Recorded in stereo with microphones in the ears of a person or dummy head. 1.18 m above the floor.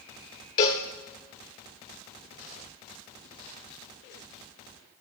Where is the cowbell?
20° left (ahead or behind), 0.8 m.